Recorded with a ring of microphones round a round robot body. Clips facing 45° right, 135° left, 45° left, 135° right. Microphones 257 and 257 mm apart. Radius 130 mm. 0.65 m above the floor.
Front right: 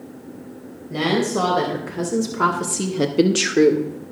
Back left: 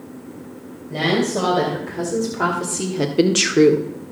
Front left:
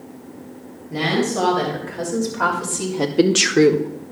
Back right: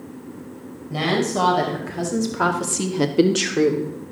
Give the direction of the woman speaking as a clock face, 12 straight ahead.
4 o'clock.